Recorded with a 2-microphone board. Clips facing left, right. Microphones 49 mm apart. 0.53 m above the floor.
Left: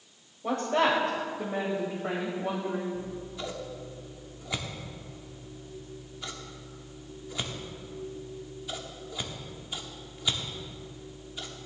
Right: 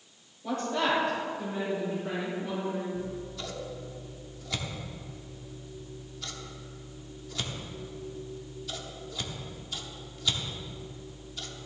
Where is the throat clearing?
I don't hear throat clearing.